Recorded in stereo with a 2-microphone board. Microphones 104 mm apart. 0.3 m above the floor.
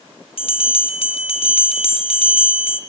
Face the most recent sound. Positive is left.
turn(degrees=65)  # may be behind; listen again after turning